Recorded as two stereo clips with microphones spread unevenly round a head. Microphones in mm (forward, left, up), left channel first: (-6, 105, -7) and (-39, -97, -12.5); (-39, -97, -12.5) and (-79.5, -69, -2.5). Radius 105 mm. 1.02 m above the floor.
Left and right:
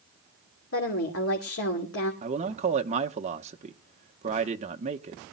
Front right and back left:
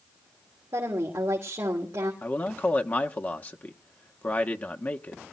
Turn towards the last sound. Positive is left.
turn(degrees=-50)